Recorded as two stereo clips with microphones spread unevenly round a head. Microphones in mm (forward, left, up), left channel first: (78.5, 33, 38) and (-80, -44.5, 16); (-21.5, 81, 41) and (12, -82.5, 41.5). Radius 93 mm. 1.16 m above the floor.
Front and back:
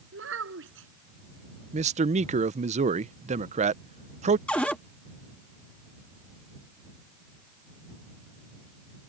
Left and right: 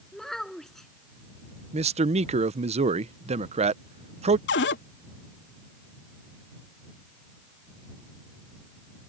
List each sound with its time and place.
0.1 s a child speaking: 170° right
1.7 s a man speaking: 120° right
4.5 s a cupboard door: 110° left